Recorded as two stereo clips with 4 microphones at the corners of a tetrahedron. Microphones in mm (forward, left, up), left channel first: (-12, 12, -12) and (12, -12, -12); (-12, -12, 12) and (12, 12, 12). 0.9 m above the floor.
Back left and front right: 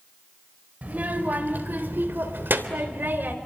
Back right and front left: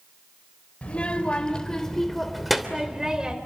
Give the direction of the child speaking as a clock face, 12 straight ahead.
3 o'clock.